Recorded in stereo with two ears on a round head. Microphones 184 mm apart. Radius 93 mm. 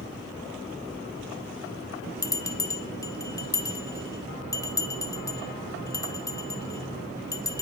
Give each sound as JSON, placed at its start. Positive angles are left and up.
{"t": 2.2, "sound": "a bell", "side_deg": 15, "distance_m": 1.4}